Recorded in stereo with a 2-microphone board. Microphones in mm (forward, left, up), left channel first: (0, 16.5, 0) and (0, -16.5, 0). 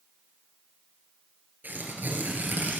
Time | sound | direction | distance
1.6 | tearing paper | 65° right (ahead or behind) | 2 m